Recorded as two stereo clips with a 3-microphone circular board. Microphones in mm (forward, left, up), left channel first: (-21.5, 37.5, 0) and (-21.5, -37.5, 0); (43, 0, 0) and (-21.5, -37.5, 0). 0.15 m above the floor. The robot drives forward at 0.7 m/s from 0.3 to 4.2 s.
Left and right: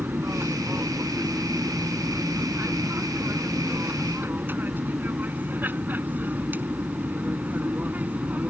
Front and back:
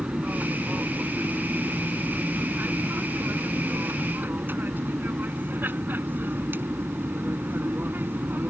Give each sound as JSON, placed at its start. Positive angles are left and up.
{"t": 0.0, "sound": "an aircraft", "azimuth_deg": -100}